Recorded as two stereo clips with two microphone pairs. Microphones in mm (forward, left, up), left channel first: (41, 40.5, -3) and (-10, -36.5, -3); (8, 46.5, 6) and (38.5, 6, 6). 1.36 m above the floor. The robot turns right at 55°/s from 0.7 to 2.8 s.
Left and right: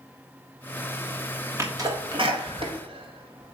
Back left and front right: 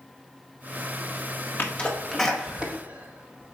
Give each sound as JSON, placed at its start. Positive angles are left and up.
{"t": 1.6, "sound": "a sneeze", "azimuth_deg": 180, "distance_m": 1.6}